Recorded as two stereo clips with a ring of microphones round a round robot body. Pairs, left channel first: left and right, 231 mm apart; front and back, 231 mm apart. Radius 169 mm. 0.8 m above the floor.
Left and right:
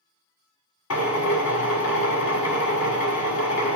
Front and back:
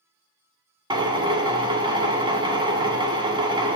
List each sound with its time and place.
0.9 s a drill: 110° left, 1.6 m